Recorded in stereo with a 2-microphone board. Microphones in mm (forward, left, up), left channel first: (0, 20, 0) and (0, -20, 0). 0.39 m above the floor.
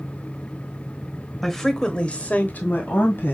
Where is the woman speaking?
Centre (ahead or behind), 1.4 m; by 3.3 s 60° left (ahead or behind), 1.7 m.